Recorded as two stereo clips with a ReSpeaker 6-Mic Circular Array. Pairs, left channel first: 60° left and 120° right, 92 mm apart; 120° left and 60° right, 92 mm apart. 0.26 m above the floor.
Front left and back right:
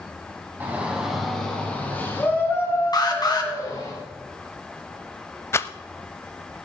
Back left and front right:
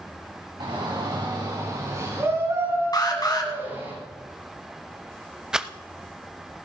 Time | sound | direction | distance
0.6 | a shout | 55° right | 2 m
2.9 | an alarm | 85° left | 2 m
5.5 | a rattle | 20° left | 0.6 m